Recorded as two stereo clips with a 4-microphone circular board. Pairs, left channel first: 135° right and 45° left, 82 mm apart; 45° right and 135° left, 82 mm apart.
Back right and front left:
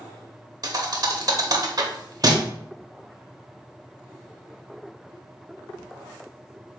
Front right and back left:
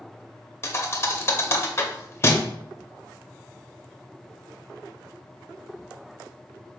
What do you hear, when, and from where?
0.6 s a thud: 10° left, 0.6 m